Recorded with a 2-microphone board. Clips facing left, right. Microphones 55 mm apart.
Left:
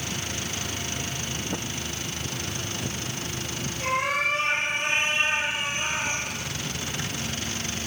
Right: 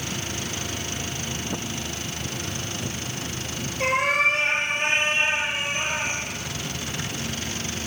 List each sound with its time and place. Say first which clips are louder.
3.8 s a cat meowing: right 4 dB; 70° right (ahead or behind), 4.5 m; by 6.2 s 35° right (ahead or behind), 5.5 m